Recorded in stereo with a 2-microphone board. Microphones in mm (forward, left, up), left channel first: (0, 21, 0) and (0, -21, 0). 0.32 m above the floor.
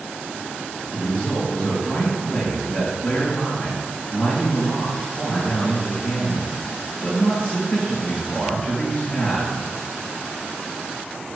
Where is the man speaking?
40° left (ahead or behind), 5 m.